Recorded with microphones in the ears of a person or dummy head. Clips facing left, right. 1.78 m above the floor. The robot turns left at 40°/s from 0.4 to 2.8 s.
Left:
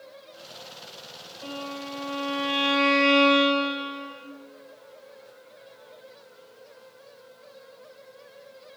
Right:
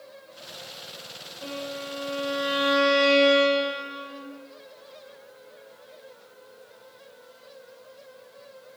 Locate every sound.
1.4 s a violin: 60° right, 1.2 m; by 4.2 s 115° right, 1.2 m